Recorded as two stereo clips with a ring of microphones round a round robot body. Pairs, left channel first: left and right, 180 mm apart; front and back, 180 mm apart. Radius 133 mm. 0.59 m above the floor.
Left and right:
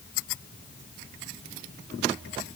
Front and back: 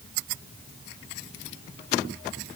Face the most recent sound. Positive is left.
No sound to turn to.